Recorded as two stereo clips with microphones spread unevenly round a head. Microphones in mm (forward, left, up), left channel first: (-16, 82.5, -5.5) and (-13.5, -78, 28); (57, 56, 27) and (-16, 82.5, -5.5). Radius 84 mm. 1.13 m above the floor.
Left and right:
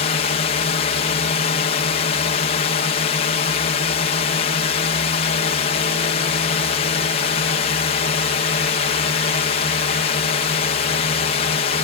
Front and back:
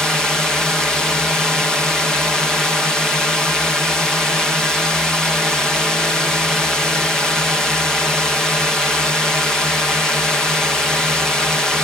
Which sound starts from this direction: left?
A drone, at 0.0 s.